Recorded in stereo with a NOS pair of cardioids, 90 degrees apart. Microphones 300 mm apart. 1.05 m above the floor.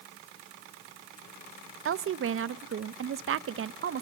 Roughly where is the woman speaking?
Ahead right.